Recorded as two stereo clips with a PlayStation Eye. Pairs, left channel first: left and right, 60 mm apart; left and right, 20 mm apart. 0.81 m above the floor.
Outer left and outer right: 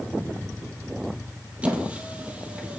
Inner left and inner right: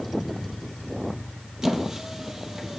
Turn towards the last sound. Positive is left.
turn(degrees=-20)  # may be behind; listen again after turning